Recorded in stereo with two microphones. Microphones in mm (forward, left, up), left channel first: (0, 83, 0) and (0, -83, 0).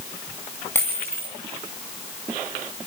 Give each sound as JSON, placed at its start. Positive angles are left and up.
{"t": 0.8, "sound": "a dropped coin", "side_deg": 10, "distance_m": 6.0}